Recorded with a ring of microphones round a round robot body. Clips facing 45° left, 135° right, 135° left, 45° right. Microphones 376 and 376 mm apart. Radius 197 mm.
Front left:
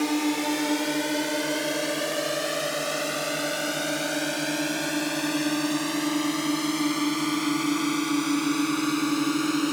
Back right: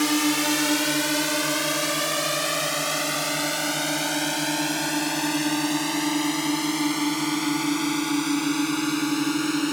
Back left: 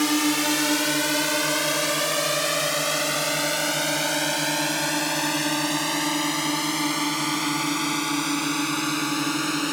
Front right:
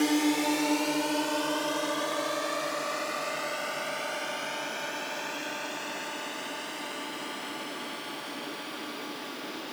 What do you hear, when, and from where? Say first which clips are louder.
0.0 s a drone: back right 2 dB, back left 2 dB; 175° right; by 9.7 s 145° left